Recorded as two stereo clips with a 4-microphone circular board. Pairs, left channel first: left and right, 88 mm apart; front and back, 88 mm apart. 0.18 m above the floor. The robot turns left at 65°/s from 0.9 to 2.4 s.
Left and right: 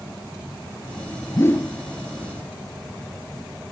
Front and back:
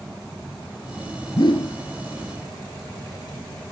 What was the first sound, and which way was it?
A whoosh, 35° left.